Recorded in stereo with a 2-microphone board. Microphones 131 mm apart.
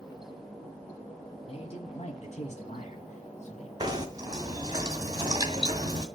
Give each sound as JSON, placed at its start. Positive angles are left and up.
{"t": 1.5, "sound": "a man speaking", "side_deg": 45, "distance_m": 1.4}
{"t": 3.8, "sound": "knocking", "side_deg": -30, "distance_m": 1.9}